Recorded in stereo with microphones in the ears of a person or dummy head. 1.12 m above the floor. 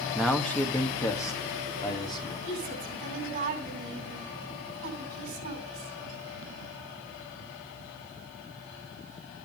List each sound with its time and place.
0.1 s a man speaking: centre (ahead or behind), 1.8 m; by 2.3 s 25° left (ahead or behind), 3.5 m
2.4 s a woman speaking: 45° right (ahead or behind), 9 m